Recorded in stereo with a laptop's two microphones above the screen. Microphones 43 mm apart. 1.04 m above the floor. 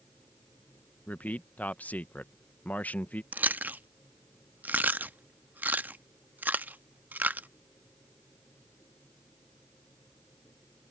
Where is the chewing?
45° right (ahead or behind).